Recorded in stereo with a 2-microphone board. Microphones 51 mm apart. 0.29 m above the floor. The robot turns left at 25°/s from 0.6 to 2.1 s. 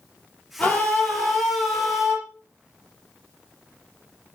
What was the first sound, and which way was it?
A scream, 25° left.